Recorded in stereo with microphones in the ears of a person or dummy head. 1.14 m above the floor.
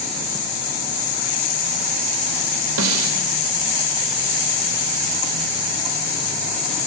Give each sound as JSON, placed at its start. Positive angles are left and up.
{"t": 2.8, "sound": "a snare drum", "side_deg": -75, "distance_m": 3.0}